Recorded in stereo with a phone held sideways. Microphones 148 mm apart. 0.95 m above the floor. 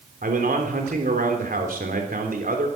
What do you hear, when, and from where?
0.2 s a man speaking: 75° right (ahead or behind), 3 m